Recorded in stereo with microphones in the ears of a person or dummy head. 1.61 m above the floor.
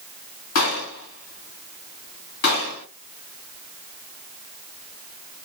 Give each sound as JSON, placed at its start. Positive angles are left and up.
{"t": 0.6, "sound": "a gunshot", "side_deg": 50, "distance_m": 1.8}